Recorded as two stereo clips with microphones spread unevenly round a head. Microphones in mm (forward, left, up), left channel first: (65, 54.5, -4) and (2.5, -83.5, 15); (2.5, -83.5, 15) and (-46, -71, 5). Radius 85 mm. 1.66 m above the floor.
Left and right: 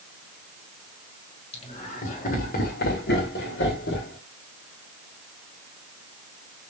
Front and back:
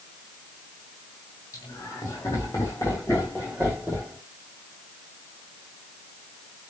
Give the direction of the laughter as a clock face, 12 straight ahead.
11 o'clock.